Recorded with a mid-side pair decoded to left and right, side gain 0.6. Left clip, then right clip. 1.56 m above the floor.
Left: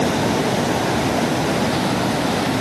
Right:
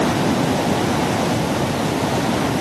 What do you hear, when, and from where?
Only background noise.